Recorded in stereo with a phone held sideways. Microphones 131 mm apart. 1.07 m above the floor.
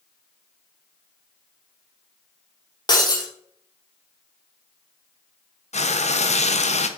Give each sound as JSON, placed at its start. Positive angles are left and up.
{"t": 2.9, "sound": "breaking glass", "side_deg": 35, "distance_m": 2.5}
{"t": 5.7, "sound": "frying", "side_deg": 60, "distance_m": 0.7}